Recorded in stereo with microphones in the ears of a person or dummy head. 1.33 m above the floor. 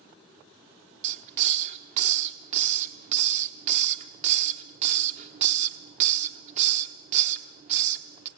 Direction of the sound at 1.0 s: 40° right (ahead or behind).